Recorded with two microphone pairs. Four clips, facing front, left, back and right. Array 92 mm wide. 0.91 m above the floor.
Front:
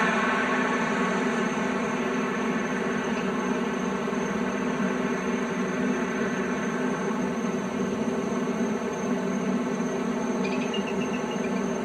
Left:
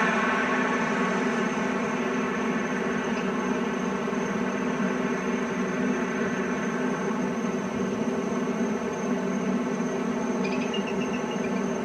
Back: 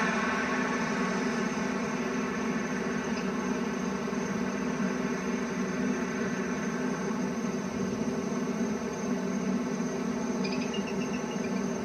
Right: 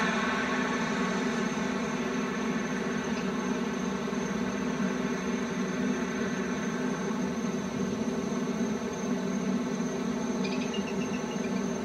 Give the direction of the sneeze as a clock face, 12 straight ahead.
I don't hear a sneeze.